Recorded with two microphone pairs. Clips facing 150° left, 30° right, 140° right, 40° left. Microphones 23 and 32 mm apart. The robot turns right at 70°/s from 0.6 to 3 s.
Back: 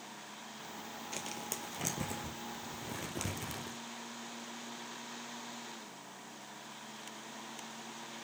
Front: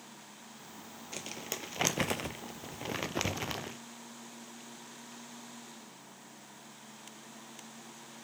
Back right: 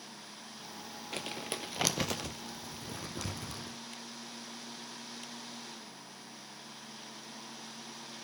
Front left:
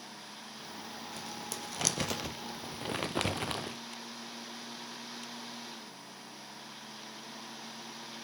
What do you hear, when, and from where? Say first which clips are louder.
1.1 s crumpling: front 2 dB, back right 6 dB; 120° right, 0.8 m; by 3.8 s 10° left, 0.8 m